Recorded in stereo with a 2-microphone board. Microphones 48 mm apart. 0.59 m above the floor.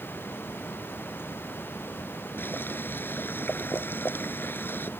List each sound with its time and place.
2.4 s boiling: 50° left (ahead or behind)